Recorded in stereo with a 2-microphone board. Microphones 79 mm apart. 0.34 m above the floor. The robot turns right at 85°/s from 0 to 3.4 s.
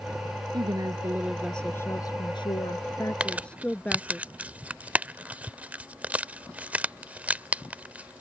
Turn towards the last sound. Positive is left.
turn(degrees=-20)  # may be behind; listen again after turning